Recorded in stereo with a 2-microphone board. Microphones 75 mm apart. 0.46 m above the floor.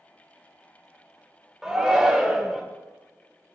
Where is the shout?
5° right (ahead or behind), 1.0 m.